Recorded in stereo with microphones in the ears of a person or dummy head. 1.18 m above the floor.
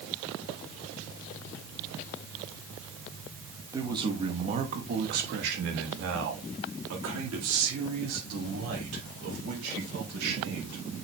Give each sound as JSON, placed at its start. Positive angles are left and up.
{"t": 3.7, "sound": "a man speaking", "side_deg": -20, "distance_m": 1.1}